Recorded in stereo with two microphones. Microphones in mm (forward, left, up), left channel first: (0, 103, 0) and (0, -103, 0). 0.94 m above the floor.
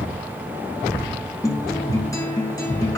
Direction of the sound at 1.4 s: 15° left (ahead or behind).